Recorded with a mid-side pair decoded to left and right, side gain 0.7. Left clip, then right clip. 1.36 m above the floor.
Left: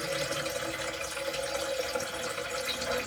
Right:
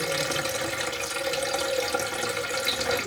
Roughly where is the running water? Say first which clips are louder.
Right 5 dB; ahead right.